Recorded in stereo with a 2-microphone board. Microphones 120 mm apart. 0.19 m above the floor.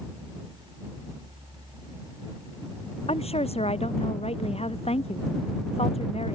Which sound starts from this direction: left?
A woman speaking, at 3.1 s.